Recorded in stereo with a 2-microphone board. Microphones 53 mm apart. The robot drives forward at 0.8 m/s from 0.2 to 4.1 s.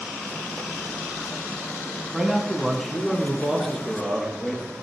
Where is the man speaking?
Centre (ahead or behind), 1.6 m.